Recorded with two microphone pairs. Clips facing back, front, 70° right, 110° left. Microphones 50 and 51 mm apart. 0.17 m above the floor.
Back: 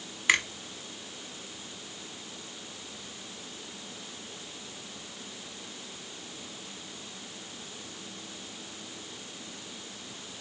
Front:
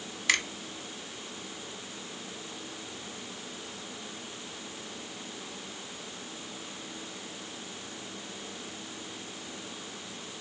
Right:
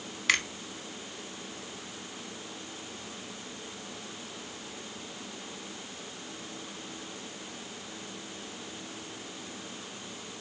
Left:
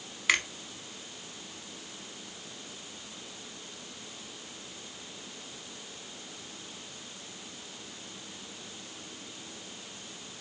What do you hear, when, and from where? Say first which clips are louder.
0.3 s a finger snap: back 3 dB, even; 175° left, 0.8 m